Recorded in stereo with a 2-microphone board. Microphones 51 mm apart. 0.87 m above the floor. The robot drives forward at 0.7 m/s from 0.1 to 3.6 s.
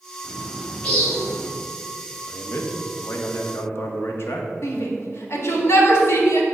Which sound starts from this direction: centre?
A bird, at 0.2 s.